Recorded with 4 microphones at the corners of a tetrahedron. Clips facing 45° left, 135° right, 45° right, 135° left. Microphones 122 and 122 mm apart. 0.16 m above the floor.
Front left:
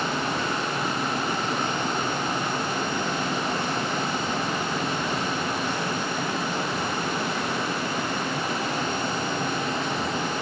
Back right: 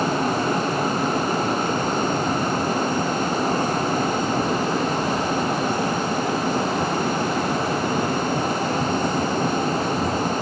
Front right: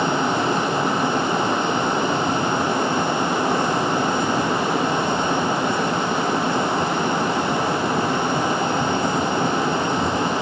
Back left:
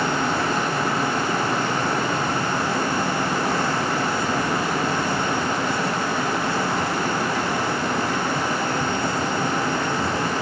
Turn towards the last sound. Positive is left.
No sound to turn to.